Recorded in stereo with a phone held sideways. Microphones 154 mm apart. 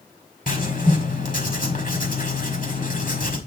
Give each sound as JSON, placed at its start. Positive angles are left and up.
{"t": 0.5, "sound": "writing", "side_deg": 60, "distance_m": 1.8}